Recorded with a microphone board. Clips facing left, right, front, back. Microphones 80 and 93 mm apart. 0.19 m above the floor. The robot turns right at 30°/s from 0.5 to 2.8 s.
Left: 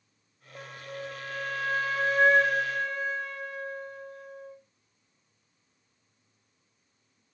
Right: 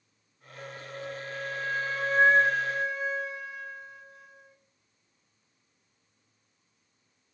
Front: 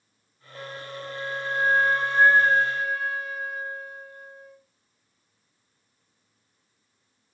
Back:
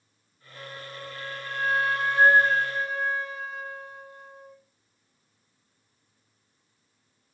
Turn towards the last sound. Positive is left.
turn(degrees=120)